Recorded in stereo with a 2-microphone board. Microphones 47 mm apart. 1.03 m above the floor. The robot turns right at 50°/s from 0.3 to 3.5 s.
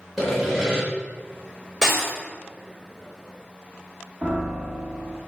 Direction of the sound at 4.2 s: 45° right (ahead or behind).